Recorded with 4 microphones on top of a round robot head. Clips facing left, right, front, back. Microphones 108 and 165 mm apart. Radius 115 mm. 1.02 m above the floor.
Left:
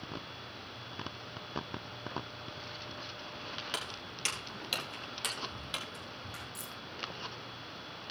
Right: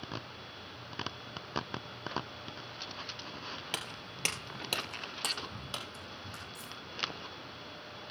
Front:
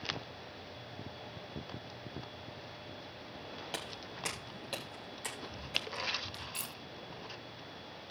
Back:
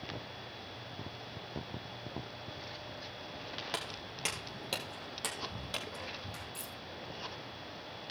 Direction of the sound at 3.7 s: 90° right.